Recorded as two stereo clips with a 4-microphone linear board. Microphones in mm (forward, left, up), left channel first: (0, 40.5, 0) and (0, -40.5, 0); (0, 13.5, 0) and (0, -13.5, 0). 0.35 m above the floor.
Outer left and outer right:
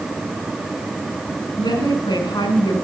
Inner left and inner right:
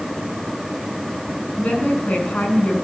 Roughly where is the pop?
I don't hear a pop.